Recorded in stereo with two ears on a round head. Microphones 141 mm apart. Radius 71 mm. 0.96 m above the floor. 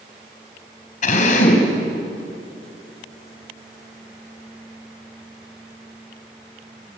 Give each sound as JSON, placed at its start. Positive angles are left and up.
{"t": 1.0, "sound": "a drill", "side_deg": 50, "distance_m": 4.5}